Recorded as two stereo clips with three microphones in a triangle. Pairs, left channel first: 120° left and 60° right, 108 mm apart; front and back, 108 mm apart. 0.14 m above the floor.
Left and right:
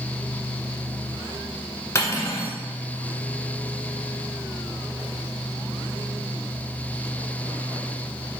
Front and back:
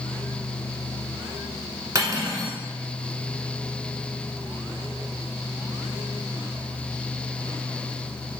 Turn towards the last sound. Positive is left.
turn(degrees=155)